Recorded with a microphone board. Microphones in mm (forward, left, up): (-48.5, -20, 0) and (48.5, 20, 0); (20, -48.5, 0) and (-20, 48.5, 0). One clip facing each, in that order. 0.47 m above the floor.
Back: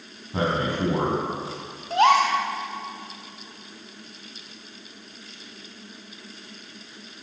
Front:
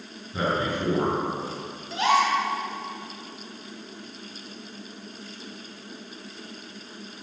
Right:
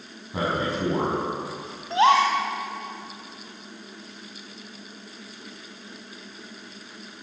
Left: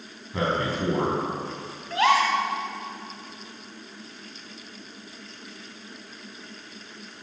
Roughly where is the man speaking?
Behind right.